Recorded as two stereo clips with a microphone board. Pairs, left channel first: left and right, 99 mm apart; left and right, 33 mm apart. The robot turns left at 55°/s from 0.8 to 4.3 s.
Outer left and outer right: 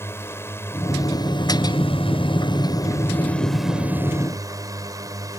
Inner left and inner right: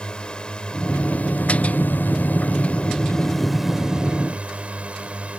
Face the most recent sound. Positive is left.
turn(degrees=-40)